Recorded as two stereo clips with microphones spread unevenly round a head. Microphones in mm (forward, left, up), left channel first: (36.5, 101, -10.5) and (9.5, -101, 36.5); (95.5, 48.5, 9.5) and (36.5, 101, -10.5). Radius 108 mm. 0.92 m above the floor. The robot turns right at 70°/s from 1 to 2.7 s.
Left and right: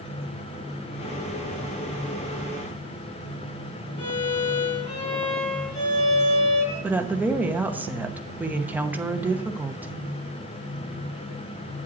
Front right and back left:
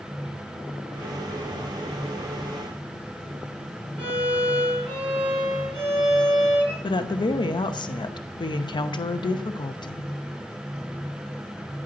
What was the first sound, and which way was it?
A violin, 150° left.